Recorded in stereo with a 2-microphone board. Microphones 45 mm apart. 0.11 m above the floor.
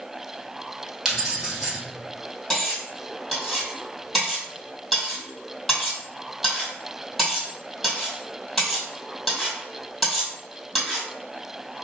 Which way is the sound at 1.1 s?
10° right (ahead or behind).